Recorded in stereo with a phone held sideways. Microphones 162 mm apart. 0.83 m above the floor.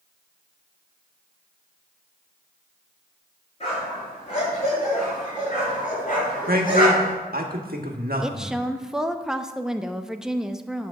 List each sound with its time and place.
3.6 s a dog barking: 40° left (ahead or behind), 5.5 m; by 7.2 s 60° left (ahead or behind), 4.5 m
6.5 s a man speaking: 65° right (ahead or behind), 1.5 m
8.2 s a woman speaking: 5° right (ahead or behind), 0.6 m